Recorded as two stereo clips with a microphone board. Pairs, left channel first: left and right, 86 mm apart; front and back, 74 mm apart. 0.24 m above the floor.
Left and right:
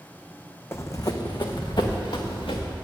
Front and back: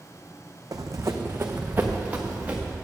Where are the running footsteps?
150° left, 0.7 m; by 2.7 s 110° left, 1.9 m.